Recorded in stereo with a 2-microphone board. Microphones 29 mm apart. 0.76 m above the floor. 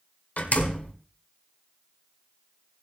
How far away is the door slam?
About 1.5 m.